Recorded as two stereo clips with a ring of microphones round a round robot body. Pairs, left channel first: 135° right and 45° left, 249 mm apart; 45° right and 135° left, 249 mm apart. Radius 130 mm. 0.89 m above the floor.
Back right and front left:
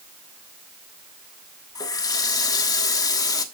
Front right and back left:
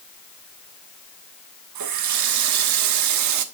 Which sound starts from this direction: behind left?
A running tap, at 1.8 s.